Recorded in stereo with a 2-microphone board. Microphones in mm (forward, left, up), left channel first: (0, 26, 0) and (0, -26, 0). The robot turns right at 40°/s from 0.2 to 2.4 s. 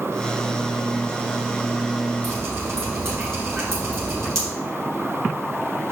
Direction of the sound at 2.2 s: 55° right (ahead or behind).